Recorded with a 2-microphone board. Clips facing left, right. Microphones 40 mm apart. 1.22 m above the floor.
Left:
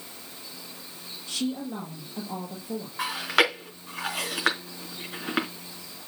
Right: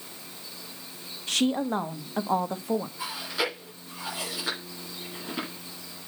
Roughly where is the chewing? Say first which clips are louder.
Left 7 dB; left.